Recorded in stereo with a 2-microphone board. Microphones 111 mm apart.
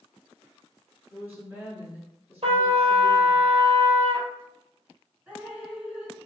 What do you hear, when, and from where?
1.1 s a woman speaking: 20° right (ahead or behind), 1.5 m
2.4 s a trumpet: 65° right (ahead or behind), 0.5 m
5.3 s dripping: 10° right (ahead or behind), 1.6 m